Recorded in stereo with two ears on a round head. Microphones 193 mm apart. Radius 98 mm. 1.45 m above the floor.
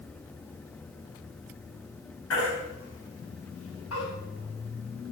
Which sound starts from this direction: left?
A baby crying, at 2.3 s.